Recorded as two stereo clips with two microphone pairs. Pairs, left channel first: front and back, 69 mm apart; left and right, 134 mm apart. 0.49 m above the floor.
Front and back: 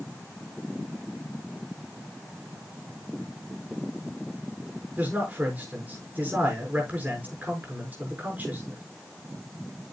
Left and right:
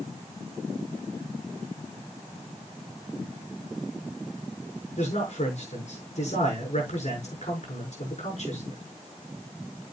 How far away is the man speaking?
About 6.5 m.